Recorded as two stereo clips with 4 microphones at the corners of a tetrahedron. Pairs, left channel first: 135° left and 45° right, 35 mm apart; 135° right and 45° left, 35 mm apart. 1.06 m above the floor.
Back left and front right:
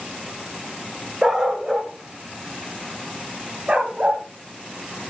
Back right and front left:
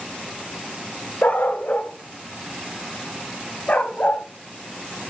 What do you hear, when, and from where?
1.2 s a dog barking: 125° right, 1.7 m; by 4.2 s 100° right, 3 m